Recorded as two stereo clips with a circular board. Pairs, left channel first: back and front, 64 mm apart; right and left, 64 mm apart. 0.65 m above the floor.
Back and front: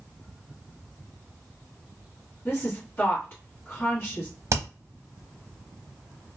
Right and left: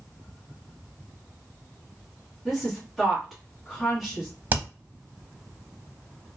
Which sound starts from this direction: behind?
A woman speaking, at 2.5 s.